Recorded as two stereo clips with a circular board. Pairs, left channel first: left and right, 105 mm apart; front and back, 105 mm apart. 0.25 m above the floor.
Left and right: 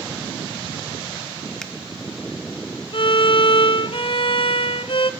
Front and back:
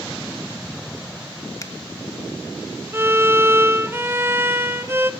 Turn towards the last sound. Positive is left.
turn(degrees=115)